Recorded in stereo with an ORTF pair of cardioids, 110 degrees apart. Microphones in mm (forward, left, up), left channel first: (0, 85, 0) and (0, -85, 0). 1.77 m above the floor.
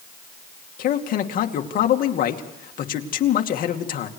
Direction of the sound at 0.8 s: 55° left.